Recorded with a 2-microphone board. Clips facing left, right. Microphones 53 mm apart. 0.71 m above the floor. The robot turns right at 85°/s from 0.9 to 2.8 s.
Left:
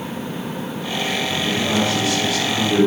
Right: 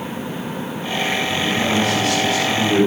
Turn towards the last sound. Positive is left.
turn(degrees=-10)